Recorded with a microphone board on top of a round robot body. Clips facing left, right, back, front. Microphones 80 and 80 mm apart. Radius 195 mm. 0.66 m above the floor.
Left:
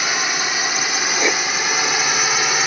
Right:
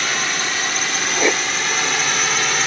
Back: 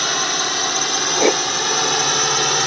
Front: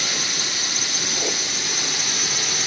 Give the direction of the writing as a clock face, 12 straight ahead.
6 o'clock.